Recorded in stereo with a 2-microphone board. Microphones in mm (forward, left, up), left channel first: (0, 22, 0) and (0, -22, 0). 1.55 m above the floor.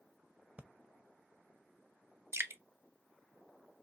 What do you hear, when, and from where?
0.6 s breathing: 30° right (ahead or behind), 0.7 m
2.3 s dripping: 80° right, 0.5 m